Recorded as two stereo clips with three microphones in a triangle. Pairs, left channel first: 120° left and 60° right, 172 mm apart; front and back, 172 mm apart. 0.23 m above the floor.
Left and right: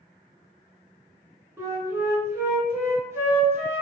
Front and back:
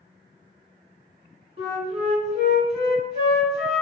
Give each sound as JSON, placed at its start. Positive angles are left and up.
{"t": 1.6, "sound": "a flute", "azimuth_deg": -135, "distance_m": 0.9}